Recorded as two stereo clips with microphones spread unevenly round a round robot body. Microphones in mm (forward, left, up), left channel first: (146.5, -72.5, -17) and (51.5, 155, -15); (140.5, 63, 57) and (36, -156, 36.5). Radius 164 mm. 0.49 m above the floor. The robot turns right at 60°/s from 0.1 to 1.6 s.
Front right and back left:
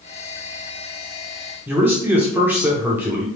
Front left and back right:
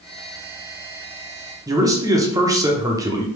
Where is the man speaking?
170° right, 0.7 m.